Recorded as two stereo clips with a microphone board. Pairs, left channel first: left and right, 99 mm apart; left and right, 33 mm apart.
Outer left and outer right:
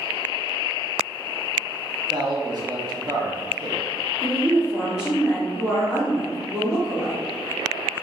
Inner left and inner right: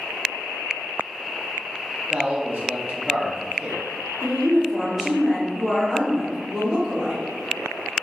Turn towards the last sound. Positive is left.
turn(degrees=-10)  # may be behind; listen again after turning